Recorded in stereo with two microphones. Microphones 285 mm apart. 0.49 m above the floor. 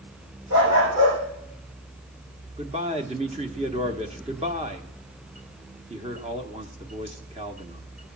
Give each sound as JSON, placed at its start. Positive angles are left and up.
{"t": 0.5, "sound": "a dog barking", "side_deg": -80, "distance_m": 7.0}
{"t": 2.6, "sound": "a man speaking", "side_deg": -20, "distance_m": 1.0}